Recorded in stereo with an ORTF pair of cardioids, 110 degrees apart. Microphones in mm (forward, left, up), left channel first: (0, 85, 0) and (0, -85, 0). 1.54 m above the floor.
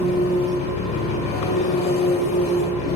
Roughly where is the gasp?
I don't hear a gasp.